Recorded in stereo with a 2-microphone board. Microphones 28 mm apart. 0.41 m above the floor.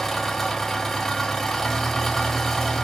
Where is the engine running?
5° left (ahead or behind), 1.7 m.